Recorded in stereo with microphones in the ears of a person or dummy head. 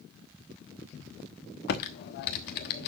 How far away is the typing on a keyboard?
About 1.1 m.